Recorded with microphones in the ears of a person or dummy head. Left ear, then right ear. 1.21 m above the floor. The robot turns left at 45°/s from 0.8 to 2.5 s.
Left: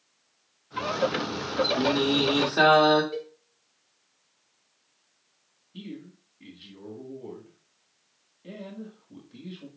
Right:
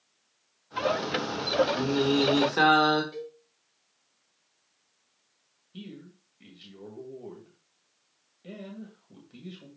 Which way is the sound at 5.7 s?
50° right (ahead or behind).